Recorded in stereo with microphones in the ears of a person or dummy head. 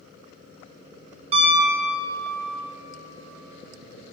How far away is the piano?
About 2 m.